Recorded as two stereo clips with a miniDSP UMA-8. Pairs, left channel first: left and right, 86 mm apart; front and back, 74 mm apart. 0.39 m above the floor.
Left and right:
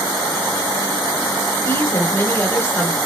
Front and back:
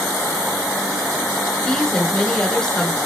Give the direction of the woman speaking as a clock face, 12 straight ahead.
10 o'clock.